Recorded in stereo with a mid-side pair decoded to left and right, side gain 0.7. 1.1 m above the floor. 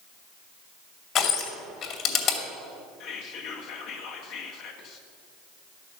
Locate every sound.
1.1 s crushing: 45° left, 2.5 m
3.0 s whispering: 60° left, 1.8 m